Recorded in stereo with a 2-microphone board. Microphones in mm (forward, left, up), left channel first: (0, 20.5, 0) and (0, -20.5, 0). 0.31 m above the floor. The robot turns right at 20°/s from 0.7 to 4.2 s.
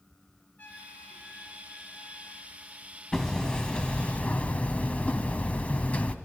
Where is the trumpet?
35° left, 9 m; by 2.7 s 75° left, 9 m.